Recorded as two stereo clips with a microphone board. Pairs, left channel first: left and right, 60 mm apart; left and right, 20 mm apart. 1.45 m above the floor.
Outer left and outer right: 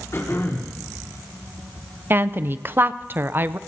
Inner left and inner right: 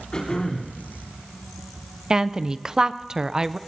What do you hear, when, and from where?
0.1 s throat clearing: 55° left (ahead or behind), 3.5 m
2.1 s a woman speaking: 35° right (ahead or behind), 0.5 m